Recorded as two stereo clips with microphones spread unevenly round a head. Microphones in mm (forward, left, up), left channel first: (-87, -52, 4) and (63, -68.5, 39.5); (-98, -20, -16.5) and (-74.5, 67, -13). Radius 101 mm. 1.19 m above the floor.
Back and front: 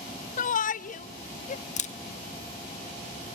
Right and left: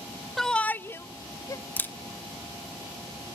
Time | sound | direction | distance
0.4 | a shout | 165° left | 0.6 m
1.8 | a camera shutter | 170° right | 1.2 m